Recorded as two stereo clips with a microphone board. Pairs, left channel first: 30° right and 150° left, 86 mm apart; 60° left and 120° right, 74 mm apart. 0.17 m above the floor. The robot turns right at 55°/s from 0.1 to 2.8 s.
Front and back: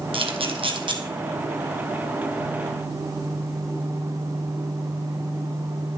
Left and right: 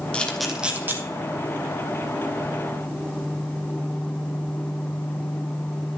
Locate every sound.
0.1 s a camera shutter: 135° left, 1.7 m; by 1.0 s straight behind, 1.7 m